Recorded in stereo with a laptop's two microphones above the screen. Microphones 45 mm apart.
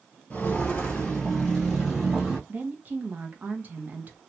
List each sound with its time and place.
0.3 s footsteps: 30° left (ahead or behind), 1.0 m; by 2.4 s 5° right (ahead or behind), 1.5 m
2.5 s a woman speaking: 40° right (ahead or behind), 0.8 m